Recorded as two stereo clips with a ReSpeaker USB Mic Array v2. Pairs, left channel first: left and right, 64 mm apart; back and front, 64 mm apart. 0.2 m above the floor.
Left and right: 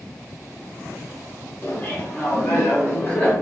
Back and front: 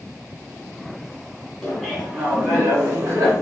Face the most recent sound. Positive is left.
turn(degrees=40)